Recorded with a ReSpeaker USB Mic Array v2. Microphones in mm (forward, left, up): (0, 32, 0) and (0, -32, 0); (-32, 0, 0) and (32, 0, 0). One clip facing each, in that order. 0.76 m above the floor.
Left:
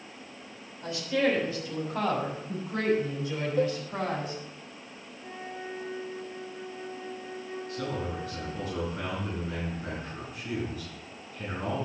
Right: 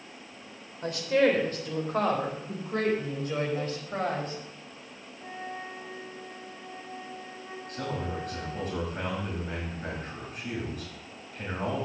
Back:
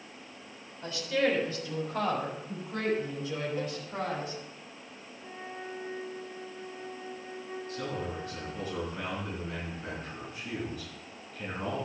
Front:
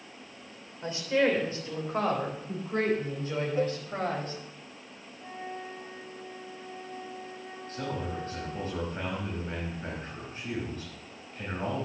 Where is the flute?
35° right, 2.5 m.